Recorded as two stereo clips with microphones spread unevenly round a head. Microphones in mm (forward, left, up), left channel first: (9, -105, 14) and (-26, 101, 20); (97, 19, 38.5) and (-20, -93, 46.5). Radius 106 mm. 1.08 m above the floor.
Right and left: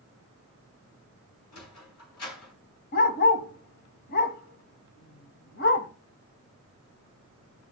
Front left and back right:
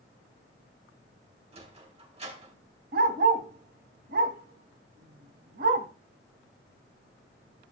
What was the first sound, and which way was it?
A sliding door, 85° right.